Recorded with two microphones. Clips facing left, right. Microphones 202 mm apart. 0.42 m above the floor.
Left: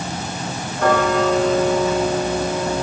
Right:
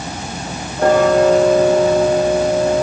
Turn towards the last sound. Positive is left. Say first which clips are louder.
# right 6 dB
turn(degrees=-35)  # may be behind; listen again after turning